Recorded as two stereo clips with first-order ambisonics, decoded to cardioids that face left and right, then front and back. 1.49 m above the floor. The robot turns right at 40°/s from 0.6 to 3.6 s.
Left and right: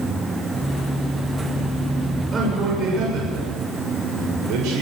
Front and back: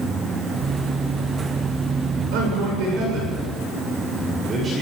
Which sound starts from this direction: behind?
A man speaking, at 2.3 s.